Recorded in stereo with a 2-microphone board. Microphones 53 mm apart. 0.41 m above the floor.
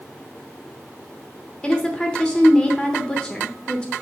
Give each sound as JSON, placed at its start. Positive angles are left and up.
{"t": 1.6, "sound": "a woman speaking", "side_deg": 20, "distance_m": 0.8}